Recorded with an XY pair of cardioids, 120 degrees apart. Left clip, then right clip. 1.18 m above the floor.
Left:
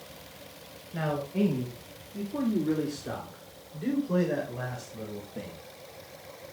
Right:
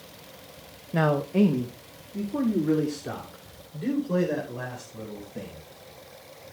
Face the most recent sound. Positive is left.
turn(degrees=-10)